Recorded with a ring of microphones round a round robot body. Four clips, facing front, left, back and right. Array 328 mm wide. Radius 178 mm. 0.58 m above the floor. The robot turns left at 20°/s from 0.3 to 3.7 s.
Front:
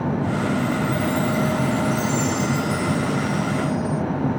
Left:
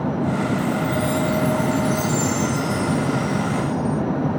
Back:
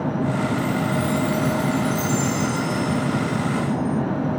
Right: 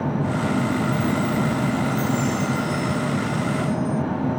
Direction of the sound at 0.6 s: 100° left.